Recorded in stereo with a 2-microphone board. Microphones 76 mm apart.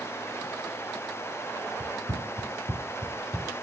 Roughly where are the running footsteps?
Right.